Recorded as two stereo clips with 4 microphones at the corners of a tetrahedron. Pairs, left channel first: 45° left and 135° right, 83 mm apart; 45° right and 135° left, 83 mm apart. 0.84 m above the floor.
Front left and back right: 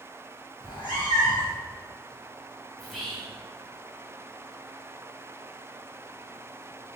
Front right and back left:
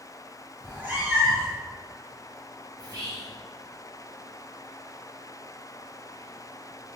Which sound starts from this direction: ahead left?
A cat meowing, at 0.6 s.